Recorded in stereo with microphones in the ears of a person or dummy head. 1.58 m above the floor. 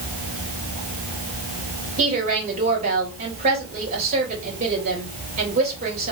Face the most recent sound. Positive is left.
turn(degrees=-45)  # may be behind; listen again after turning